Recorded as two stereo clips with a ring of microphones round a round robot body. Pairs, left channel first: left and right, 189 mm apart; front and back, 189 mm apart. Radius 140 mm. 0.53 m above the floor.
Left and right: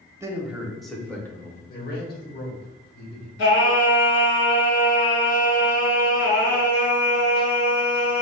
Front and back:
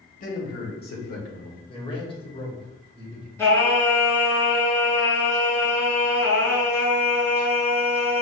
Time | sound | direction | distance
0.2 | a man speaking | 20° right | 1.3 m
1.7 | a man speaking | 60° left | 2 m
3.4 | singing | 75° left | 1.8 m